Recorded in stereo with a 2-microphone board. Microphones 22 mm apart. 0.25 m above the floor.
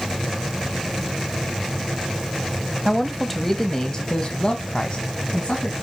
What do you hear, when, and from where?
2.9 s a man speaking: 10° right (ahead or behind), 1.0 m; by 5.7 s 60° left (ahead or behind), 1.8 m